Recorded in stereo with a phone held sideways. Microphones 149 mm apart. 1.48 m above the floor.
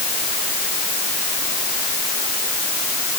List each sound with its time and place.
Only background noise.